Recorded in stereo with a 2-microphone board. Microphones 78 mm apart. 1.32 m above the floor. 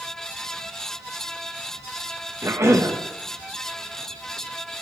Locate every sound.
2.4 s a cough: 40° right (ahead or behind), 1.6 m